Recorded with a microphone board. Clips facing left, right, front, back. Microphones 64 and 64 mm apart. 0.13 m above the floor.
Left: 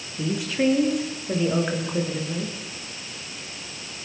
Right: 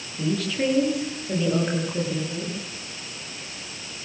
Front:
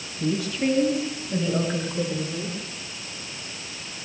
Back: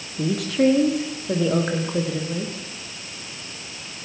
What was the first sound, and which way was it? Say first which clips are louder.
A woman speaking: left 1 dB, back 5 dB; 165° left.